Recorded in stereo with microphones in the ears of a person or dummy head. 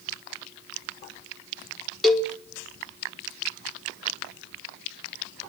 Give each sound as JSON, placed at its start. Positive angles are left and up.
{"t": 2.0, "sound": "a cowbell", "side_deg": 0, "distance_m": 0.6}